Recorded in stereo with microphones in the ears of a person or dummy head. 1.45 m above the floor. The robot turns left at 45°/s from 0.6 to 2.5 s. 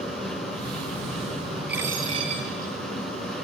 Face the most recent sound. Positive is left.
turn(degrees=-40)